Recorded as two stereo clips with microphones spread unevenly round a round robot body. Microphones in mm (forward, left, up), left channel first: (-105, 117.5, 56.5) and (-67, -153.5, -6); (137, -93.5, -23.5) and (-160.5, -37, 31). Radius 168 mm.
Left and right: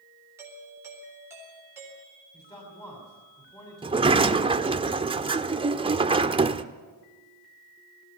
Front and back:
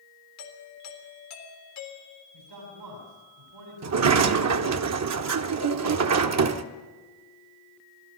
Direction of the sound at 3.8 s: 150° right.